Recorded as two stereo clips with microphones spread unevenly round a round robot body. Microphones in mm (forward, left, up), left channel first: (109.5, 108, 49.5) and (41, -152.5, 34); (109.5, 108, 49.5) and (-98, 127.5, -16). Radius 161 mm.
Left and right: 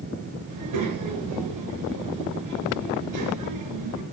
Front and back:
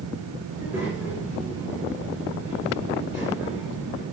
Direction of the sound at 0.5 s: 105° right.